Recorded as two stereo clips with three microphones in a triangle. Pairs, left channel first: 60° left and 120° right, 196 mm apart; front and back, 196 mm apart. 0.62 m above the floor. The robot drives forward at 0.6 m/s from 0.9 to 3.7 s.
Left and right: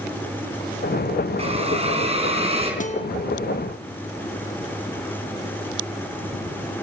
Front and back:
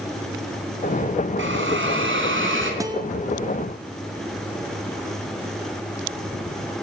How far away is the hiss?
About 4.5 m.